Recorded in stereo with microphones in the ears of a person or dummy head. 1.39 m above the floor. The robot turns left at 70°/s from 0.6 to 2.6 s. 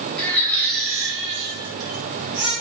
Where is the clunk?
No clunk in this recording.